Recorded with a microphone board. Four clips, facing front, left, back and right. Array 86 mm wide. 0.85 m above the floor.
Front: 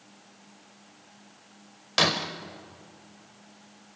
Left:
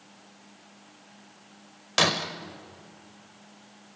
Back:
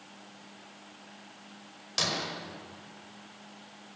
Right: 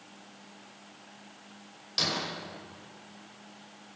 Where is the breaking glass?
50° left, 1.7 m.